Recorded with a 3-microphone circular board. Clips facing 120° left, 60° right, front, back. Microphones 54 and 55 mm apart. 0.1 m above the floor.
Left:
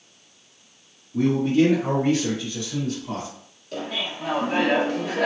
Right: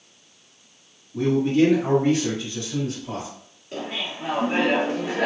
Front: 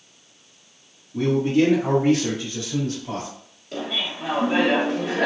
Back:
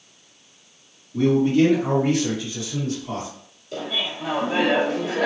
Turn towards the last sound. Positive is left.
turn(degrees=-10)